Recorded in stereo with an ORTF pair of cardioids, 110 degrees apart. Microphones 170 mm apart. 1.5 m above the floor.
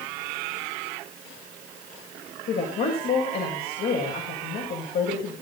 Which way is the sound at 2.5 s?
65° left.